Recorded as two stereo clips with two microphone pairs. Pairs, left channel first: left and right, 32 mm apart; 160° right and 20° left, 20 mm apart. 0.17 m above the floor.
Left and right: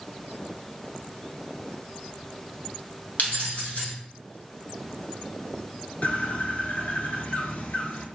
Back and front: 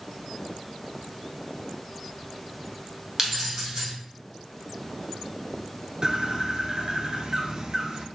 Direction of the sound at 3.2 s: 85° left.